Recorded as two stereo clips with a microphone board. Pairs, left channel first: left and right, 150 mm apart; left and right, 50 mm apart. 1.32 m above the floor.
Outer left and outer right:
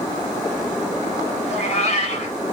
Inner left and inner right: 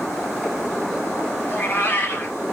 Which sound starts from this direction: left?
A cat meowing, at 1.4 s.